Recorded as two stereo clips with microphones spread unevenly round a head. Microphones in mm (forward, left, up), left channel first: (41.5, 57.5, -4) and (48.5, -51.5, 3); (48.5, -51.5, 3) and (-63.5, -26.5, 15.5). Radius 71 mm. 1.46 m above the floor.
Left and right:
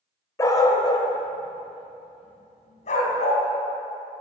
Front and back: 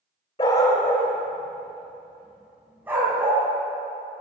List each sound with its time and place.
0.4 s a dog barking: 40° left, 1.5 m; by 3.4 s 95° left, 3.5 m